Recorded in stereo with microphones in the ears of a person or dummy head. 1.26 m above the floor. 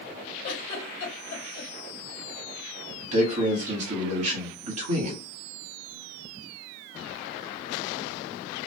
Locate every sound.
0.4 s a giggle: 50° left (ahead or behind), 1.3 m
3.1 s a man speaking: 45° right (ahead or behind), 1.5 m